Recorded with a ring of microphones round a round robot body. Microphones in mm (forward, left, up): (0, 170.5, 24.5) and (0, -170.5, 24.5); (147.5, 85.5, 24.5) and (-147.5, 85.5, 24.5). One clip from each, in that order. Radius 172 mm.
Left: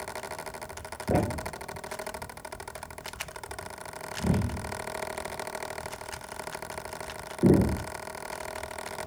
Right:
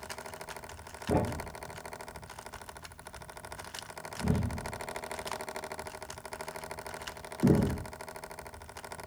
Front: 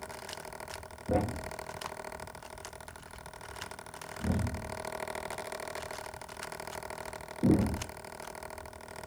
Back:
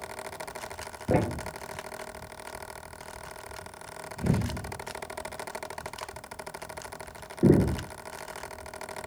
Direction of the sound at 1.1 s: 160° left.